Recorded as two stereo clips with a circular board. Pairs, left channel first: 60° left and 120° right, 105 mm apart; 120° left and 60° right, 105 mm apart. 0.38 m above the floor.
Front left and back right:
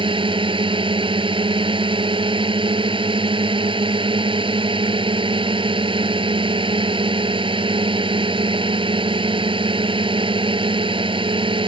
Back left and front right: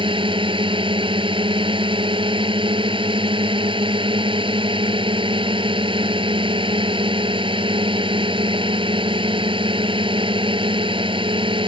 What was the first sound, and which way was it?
A drone, 90° right.